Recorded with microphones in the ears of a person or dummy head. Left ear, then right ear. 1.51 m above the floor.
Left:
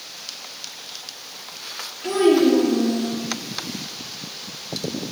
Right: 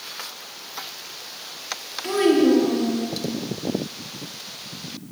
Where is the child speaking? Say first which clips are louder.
Left 1 dB; 20° right (ahead or behind), 1.9 m.